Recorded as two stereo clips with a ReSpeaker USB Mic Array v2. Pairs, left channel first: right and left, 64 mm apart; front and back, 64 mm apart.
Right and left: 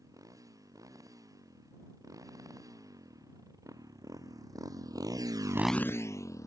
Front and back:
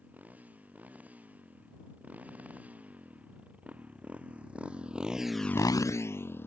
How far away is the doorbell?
I don't hear a doorbell.